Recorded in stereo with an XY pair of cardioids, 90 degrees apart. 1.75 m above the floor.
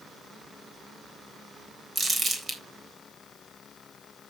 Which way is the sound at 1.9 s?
40° right.